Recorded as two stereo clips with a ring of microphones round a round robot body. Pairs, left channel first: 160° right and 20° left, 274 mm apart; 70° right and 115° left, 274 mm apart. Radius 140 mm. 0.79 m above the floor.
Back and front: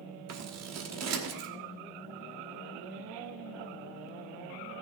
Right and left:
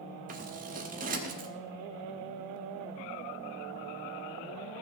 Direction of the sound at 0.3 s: 50° left.